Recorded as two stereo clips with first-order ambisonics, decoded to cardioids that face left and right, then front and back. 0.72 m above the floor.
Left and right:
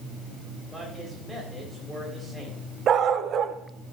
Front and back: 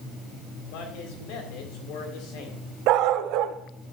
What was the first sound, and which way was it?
A man speaking, 5° right.